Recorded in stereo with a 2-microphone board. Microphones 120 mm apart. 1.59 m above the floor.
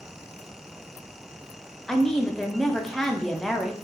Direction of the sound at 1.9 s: 5° left (ahead or behind).